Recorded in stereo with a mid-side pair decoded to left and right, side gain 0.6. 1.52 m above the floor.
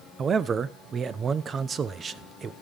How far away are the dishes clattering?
I don't hear dishes clattering.